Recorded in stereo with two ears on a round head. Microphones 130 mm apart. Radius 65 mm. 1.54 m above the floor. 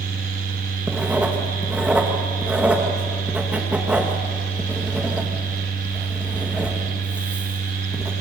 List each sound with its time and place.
0.9 s writing: 10° right (ahead or behind), 2.5 m